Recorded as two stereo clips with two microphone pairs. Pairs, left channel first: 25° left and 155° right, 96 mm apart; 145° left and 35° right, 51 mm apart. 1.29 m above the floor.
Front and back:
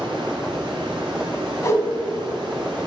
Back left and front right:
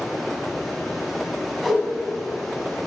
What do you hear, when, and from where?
0.0 s running water: 125° right, 1.9 m
1.6 s a whoosh: 60° left, 1.4 m